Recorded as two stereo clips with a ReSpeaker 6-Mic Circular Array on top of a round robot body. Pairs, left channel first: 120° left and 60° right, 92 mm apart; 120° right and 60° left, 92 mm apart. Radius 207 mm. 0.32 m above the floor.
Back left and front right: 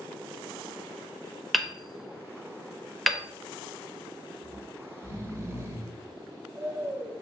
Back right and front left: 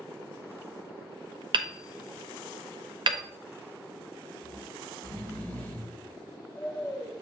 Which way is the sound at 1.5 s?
30° left.